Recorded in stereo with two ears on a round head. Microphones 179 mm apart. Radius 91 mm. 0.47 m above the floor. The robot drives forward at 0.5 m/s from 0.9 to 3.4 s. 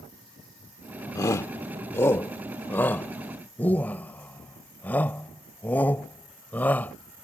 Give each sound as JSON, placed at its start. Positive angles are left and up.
{"t": 1.1, "sound": "a shout", "side_deg": 20}